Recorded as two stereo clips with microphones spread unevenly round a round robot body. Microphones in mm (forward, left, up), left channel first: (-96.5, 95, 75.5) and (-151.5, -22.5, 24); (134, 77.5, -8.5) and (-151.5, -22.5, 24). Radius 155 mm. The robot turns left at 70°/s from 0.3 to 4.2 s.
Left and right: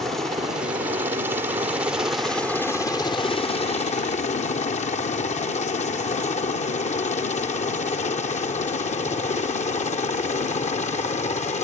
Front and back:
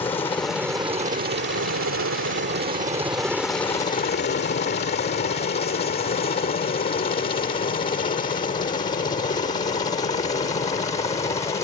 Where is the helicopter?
50° right; by 11.6 s 85° left.